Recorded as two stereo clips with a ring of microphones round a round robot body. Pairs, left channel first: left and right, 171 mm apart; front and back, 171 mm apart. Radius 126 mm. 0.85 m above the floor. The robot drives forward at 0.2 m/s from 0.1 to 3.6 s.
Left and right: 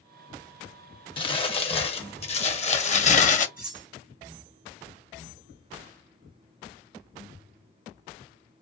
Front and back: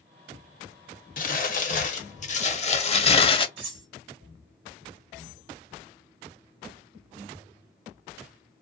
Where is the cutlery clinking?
170° right, 1.1 m.